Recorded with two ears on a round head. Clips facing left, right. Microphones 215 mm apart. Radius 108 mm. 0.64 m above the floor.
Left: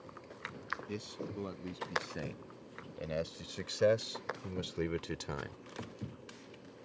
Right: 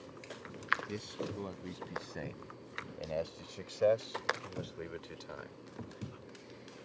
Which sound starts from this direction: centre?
A man speaking, at 0.9 s.